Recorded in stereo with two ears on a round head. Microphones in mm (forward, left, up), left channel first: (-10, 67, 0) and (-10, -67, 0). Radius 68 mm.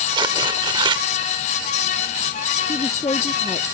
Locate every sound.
0.1 s tearing paper: 30° right (ahead or behind)
2.7 s a woman speaking: 25° left (ahead or behind)